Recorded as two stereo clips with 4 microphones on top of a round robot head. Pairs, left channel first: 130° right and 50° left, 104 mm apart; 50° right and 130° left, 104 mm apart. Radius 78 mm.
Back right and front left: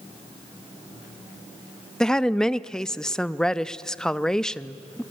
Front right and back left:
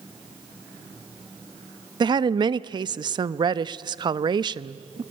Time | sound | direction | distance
2.0 | a woman speaking | 145° left | 0.7 m